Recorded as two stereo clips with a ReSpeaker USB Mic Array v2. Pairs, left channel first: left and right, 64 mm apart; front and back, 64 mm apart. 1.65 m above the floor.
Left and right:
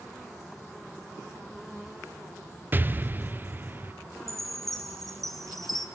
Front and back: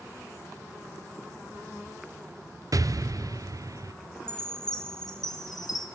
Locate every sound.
2.7 s an explosion: 150° right, 0.5 m
4.3 s a chime: 5° left, 1.8 m